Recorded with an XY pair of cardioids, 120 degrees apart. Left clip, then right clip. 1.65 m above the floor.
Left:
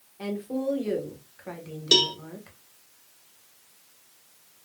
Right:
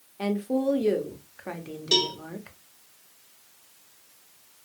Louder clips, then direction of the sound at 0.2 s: Right 4 dB; 25° right.